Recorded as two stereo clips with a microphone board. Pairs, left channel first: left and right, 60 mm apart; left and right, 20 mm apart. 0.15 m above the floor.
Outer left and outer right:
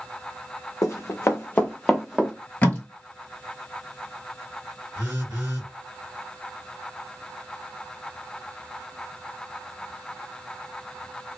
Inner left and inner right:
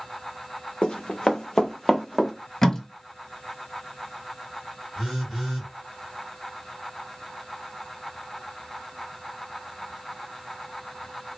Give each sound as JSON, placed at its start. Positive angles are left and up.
{"t": 0.8, "sound": "running footsteps", "side_deg": 65, "distance_m": 0.6}
{"t": 2.6, "sound": "tape being pulled", "side_deg": 25, "distance_m": 0.8}
{"t": 5.0, "sound": "a phone buzzing", "side_deg": -25, "distance_m": 1.9}